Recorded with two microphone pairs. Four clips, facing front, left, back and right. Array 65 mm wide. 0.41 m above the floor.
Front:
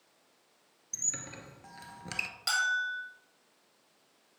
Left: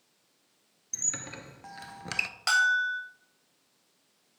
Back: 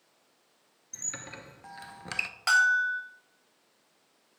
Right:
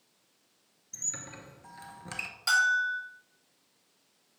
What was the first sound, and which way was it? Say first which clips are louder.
A squeak: left 4 dB, back 2 dB; 115° left.